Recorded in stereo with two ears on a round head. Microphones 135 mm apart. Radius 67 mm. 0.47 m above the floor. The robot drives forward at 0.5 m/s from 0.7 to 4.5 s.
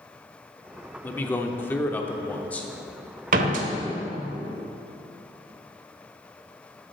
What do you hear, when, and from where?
1.0 s a man speaking: 15° left (ahead or behind), 0.7 m; by 2.7 s 10° left (ahead or behind), 1.0 m
3.3 s a door slam: 60° right (ahead or behind), 1.3 m